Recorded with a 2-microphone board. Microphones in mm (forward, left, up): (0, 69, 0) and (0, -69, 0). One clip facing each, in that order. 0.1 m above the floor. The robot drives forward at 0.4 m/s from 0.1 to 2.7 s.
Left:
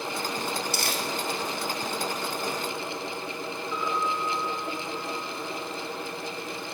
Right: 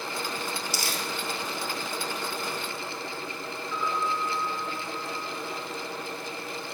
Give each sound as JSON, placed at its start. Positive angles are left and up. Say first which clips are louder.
{"t": 0.7, "sound": "crumpling", "louder": "left 2 dB", "side_deg": 60, "distance_m": 1.1}
{"t": 3.7, "sound": "a piano", "louder": "even", "side_deg": 10, "distance_m": 1.6}